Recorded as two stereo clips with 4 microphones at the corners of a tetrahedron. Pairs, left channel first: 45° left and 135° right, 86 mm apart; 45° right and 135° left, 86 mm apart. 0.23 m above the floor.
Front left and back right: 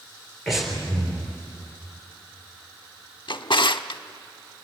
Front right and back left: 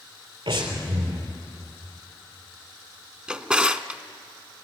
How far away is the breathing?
About 3.5 m.